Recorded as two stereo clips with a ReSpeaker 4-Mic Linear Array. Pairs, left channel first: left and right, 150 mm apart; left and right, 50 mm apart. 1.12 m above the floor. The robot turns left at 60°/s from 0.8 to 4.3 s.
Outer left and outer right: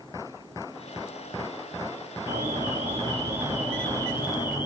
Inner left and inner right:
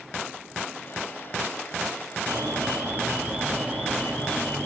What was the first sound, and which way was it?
An alarm, 95° right.